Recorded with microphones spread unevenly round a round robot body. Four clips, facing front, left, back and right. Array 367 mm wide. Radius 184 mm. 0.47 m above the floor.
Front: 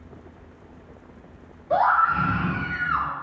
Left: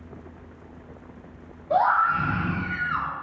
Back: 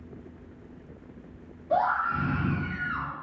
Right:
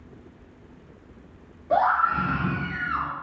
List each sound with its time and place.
1.7 s a scream: 110° right, 1.5 m; by 3.1 s 5° right, 1.5 m